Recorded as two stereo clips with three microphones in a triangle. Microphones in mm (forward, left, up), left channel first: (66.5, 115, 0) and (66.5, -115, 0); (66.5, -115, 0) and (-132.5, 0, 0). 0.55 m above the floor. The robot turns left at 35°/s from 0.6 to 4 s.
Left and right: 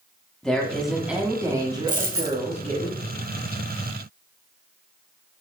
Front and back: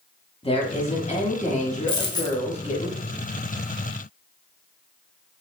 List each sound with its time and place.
0.4 s a woman speaking: 5° left, 1.1 m; by 2.9 s 75° right, 1.1 m
1.9 s a dropped coin: 45° right, 0.8 m; by 2.4 s 60° right, 0.8 m